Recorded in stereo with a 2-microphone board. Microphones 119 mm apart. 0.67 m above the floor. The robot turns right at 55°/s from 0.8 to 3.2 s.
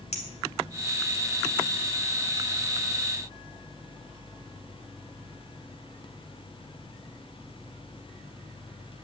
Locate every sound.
0.1 s a clink: 70° left (ahead or behind), 3 m